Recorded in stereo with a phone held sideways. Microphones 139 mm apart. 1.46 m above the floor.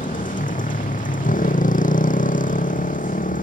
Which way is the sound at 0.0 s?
70° left (ahead or behind).